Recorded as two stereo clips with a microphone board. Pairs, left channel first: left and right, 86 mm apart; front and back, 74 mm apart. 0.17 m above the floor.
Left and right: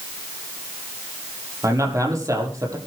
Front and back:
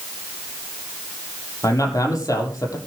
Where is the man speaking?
40° right, 6.5 m.